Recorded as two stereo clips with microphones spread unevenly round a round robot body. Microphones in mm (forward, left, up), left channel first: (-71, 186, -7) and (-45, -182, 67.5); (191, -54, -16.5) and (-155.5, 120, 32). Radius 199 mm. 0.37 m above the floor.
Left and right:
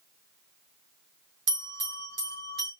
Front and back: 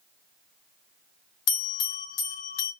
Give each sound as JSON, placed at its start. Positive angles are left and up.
{"t": 1.5, "sound": "a bell", "azimuth_deg": -20, "distance_m": 2.5}